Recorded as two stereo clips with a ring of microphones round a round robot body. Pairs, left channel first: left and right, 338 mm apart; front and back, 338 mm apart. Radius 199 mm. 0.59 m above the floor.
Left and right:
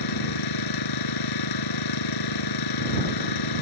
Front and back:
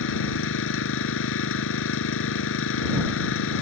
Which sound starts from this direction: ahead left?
An engine running, at 0.0 s.